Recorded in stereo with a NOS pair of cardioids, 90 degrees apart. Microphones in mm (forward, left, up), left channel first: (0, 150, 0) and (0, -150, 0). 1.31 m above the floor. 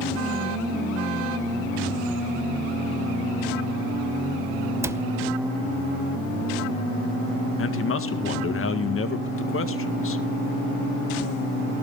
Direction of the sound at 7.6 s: 45° left.